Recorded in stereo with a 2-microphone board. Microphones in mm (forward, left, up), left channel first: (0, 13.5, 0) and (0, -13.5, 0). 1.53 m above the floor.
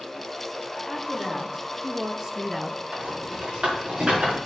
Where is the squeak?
No squeak in this recording.